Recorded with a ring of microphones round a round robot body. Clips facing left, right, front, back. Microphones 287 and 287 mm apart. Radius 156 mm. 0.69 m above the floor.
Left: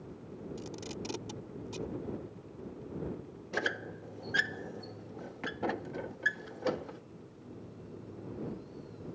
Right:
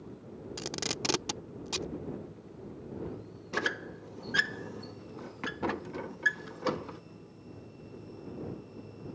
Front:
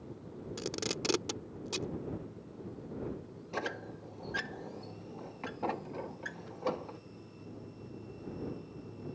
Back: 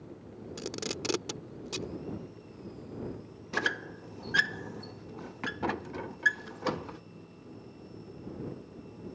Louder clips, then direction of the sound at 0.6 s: Right 6 dB, even; 90° right.